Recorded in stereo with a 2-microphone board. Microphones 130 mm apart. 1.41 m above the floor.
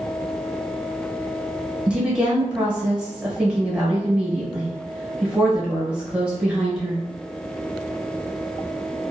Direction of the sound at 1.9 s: 5° right (ahead or behind).